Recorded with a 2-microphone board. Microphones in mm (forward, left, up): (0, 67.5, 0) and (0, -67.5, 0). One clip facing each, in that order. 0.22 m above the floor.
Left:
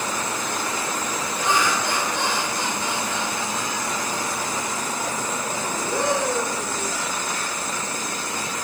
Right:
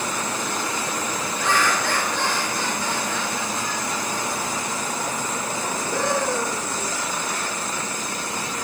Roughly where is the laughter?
Centre.